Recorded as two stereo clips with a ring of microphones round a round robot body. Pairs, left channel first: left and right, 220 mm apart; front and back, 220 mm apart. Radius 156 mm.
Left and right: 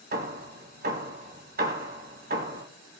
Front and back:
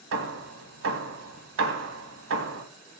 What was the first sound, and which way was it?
Hammering, 145° right.